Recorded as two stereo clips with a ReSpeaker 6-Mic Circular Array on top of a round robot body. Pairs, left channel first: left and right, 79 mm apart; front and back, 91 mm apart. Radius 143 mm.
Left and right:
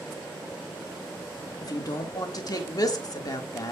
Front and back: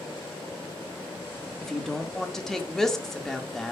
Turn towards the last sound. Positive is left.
turn(degrees=85)